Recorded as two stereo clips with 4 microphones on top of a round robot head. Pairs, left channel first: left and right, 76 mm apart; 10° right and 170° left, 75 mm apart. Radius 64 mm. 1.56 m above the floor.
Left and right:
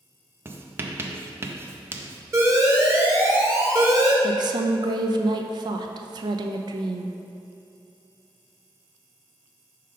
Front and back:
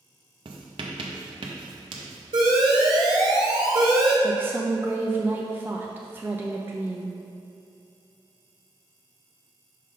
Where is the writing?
150° right, 0.5 m.